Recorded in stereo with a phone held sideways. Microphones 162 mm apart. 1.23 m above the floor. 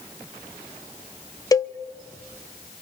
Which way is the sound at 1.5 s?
20° left (ahead or behind).